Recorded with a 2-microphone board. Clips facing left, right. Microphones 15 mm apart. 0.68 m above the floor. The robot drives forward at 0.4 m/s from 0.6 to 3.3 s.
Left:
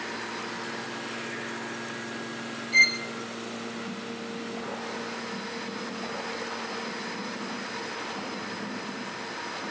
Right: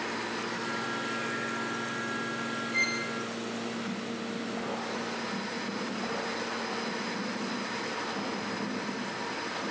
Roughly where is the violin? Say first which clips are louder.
Left 9 dB; left.